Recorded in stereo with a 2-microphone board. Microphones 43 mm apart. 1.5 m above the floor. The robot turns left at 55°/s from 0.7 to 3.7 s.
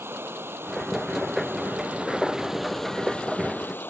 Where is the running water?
70° right; by 3.9 s 125° left.